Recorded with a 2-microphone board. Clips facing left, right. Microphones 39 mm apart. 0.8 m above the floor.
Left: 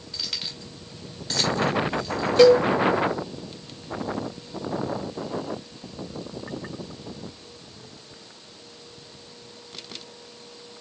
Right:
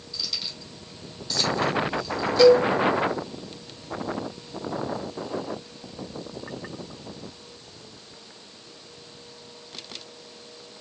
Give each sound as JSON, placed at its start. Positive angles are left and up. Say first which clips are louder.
{"t": 0.1, "sound": "keys jangling", "louder": "even", "side_deg": 60, "distance_m": 1.7}
{"t": 2.4, "sound": "a cowbell", "louder": "left 1 dB", "side_deg": 55, "distance_m": 1.1}